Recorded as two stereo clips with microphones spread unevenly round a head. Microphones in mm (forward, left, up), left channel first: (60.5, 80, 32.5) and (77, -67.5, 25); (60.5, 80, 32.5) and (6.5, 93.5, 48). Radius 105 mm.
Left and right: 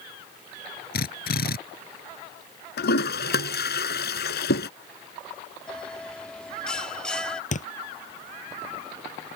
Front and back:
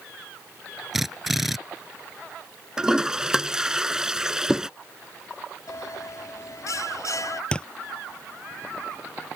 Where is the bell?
10° left.